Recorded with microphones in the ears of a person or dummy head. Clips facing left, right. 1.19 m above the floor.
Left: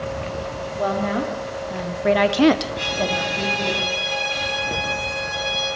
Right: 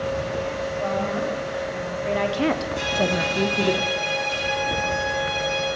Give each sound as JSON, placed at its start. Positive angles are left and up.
{"t": 0.8, "sound": "a woman speaking", "side_deg": 65, "distance_m": 2.5}
{"t": 2.8, "sound": "a violin", "side_deg": -55, "distance_m": 4.5}